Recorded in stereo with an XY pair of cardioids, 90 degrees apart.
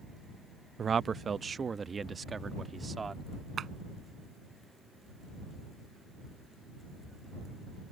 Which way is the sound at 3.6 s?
55° right.